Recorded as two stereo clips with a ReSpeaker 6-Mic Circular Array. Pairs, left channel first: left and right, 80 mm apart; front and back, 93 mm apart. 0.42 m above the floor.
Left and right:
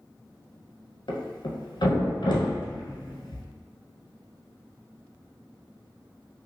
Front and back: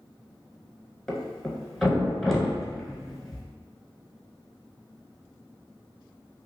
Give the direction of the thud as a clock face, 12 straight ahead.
9 o'clock.